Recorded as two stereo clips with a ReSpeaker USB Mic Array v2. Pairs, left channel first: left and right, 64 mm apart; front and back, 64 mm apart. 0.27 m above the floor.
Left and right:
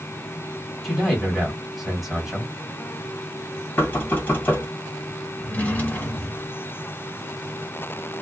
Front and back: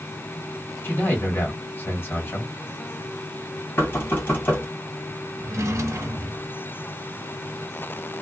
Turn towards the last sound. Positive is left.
turn(degrees=150)